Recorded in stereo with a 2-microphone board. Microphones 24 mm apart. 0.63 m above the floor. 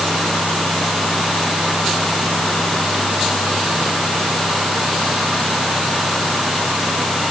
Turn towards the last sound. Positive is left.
No sound to turn to.